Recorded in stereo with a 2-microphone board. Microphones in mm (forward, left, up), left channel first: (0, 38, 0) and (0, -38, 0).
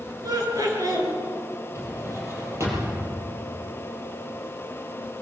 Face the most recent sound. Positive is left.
turn(degrees=-40)  # may be behind; listen again after turning